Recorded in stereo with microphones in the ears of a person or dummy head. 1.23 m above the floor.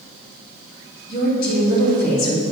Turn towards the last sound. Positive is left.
turn(degrees=55)  # may be behind; listen again after turning